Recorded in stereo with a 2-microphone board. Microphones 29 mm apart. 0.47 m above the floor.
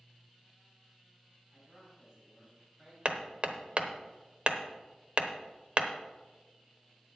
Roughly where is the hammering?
Right.